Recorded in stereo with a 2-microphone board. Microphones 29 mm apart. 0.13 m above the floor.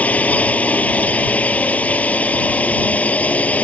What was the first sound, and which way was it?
A drone, 60° left (ahead or behind).